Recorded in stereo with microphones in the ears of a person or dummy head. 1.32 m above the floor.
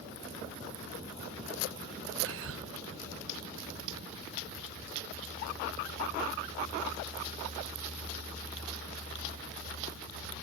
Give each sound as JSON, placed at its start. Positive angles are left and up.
{"t": 2.2, "sound": "whispering", "side_deg": -70, "distance_m": 0.8}